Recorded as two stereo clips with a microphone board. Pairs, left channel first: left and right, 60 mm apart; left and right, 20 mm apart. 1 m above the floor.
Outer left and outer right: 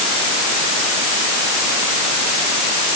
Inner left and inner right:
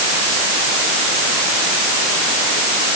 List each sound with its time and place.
Only background noise.